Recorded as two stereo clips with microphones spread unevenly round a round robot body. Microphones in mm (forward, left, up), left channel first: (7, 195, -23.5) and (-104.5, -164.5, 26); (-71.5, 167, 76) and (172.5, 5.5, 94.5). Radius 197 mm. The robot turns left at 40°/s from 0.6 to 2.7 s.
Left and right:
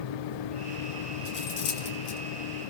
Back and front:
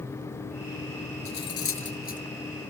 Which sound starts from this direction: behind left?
Cutlery clinking, at 1.2 s.